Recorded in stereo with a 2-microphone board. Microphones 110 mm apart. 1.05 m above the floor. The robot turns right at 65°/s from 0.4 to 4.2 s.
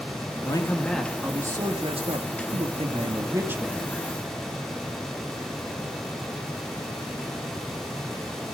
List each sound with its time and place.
0.5 s a man speaking: 140° left, 1.7 m; by 4.0 s 10° left, 1.7 m